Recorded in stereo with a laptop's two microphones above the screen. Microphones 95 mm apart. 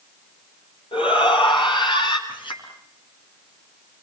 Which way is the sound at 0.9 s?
60° left (ahead or behind).